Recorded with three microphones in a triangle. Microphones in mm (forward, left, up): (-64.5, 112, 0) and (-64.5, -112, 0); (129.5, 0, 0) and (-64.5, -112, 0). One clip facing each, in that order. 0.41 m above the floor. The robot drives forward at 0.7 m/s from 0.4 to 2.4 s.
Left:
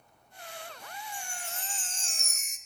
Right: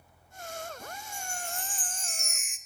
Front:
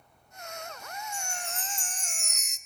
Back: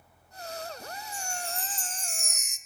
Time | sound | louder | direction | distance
1.1 | a chime | right 4 dB, back 2 dB | 20° left | 1.5 m